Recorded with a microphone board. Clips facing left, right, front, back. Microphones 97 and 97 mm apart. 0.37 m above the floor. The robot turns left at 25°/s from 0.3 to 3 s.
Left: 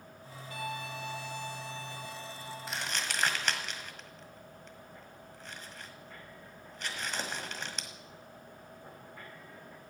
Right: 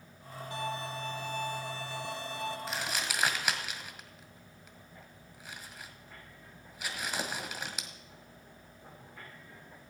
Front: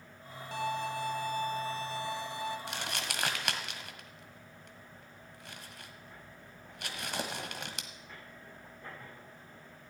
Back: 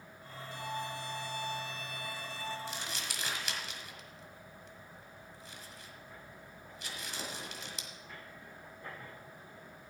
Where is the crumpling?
Straight ahead, 1.6 m; by 7.9 s 10° right, 1.6 m.